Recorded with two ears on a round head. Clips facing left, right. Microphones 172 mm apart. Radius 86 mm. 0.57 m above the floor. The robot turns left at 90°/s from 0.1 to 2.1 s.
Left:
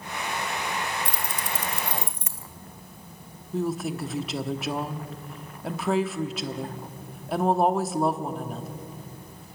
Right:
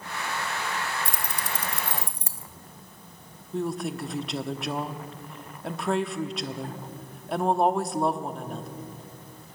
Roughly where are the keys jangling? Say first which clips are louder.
Left 1 dB; right.